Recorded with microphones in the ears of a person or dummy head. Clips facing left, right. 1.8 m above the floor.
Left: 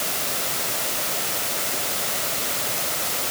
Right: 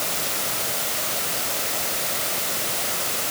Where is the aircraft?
No aircraft in this recording.